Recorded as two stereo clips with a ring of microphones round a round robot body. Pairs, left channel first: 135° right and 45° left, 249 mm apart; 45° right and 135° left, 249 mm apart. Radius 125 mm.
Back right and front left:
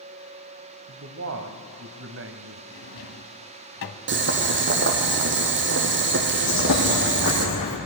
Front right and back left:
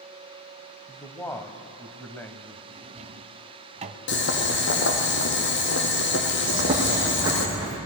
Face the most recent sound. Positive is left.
turn(degrees=-155)